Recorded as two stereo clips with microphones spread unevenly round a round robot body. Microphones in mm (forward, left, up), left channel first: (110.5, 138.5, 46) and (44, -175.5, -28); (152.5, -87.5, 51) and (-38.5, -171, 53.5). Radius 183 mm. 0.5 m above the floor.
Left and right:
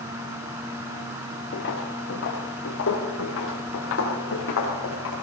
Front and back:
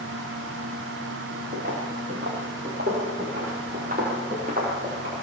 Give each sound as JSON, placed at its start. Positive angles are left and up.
{"t": 1.5, "sound": "footsteps", "azimuth_deg": 140, "distance_m": 4.0}